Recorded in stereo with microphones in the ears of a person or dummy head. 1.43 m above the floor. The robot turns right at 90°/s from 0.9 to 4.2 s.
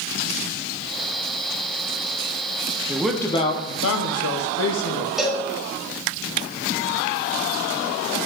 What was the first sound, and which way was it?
A man speaking, 20° right.